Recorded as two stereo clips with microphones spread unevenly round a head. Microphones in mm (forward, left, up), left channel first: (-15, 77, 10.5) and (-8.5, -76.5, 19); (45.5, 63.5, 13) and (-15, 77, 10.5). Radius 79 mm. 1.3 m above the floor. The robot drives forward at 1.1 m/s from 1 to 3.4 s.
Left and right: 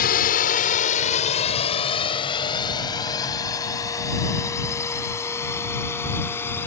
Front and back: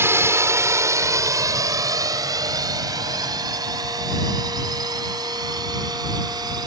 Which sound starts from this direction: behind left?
A drone, at 0.0 s.